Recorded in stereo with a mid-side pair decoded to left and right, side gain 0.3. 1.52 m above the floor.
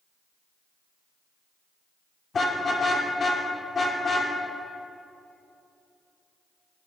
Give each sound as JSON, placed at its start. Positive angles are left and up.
{"t": 2.3, "sound": "a car horn", "azimuth_deg": 55, "distance_m": 2.5}